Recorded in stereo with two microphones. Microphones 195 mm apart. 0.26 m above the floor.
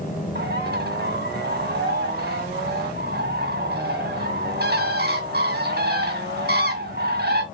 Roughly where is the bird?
Right.